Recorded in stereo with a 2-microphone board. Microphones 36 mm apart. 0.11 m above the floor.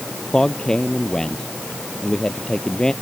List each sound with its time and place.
0.3 s a man speaking: 20° left (ahead or behind)